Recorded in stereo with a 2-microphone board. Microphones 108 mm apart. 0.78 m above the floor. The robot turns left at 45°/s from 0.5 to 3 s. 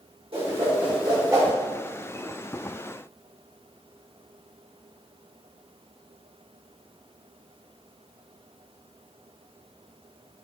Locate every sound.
0.3 s a whoosh: 65° right (ahead or behind), 2.5 m; by 1.5 s 25° right (ahead or behind), 2.5 m